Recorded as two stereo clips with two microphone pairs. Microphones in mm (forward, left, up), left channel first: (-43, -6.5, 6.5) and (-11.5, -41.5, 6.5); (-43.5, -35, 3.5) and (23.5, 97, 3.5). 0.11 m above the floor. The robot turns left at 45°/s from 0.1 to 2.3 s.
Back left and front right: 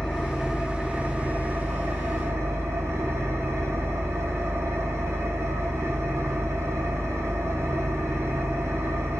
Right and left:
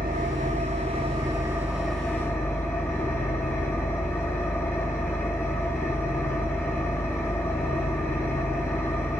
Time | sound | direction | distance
0.0 | an engine running | 55° left | 1.4 m